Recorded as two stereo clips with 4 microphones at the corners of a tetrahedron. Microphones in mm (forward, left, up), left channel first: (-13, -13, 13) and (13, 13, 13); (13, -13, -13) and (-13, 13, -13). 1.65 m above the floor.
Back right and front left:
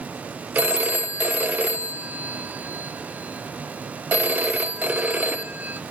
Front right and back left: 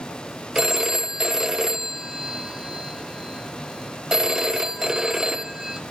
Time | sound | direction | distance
0.6 | a phone ringing | 60° left | 0.9 m